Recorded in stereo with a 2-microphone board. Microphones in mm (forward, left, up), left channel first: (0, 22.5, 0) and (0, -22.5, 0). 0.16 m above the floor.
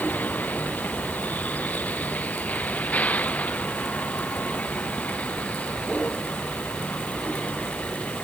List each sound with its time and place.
0.0 s a vehicle: 40° left (ahead or behind); by 8.2 s 30° left (ahead or behind)